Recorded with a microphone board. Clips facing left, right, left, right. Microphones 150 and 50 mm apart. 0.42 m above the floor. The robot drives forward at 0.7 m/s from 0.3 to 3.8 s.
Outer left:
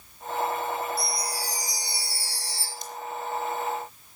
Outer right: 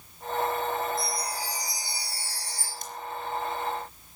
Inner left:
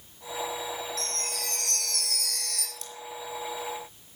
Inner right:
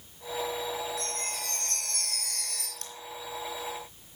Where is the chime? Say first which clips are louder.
Even, inner left 1 dB; 80° left, 3.5 m.